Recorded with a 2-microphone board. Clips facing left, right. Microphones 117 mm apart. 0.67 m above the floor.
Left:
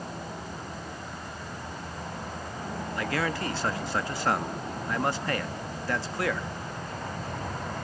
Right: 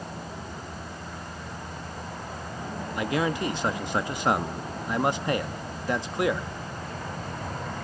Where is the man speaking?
15° right (ahead or behind), 0.5 m.